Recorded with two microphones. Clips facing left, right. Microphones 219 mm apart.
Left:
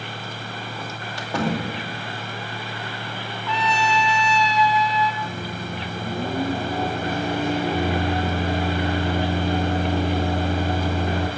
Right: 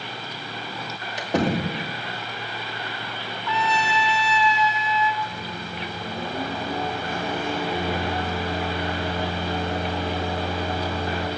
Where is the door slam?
20° right (ahead or behind), 2.5 m.